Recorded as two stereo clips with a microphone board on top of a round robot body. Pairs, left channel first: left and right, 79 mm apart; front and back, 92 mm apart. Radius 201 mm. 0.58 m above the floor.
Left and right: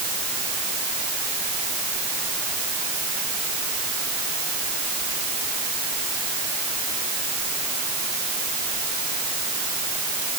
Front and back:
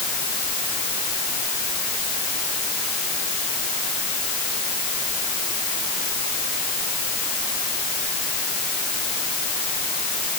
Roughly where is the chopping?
I don't hear chopping.